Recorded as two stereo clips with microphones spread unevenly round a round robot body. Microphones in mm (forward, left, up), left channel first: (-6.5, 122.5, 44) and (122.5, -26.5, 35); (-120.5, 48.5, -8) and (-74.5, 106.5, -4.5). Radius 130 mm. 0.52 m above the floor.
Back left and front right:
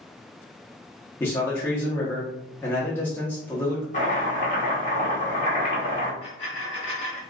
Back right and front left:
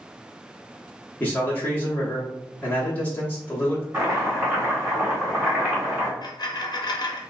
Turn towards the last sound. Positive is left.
turn(degrees=-160)